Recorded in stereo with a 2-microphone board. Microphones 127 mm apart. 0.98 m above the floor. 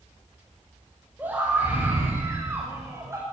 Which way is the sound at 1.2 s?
15° right (ahead or behind).